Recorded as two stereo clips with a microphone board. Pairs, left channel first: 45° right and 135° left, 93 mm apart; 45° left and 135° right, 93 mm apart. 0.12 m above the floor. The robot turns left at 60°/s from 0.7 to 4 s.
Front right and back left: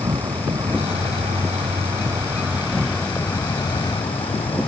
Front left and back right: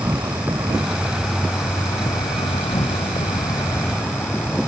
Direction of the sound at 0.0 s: 170° left.